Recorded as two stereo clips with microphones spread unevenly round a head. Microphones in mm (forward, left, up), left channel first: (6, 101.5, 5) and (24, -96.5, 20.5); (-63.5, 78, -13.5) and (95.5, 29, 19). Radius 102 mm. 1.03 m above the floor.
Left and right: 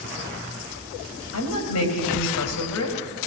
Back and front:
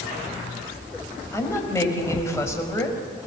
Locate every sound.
1.3 s a woman speaking: 90° left, 5 m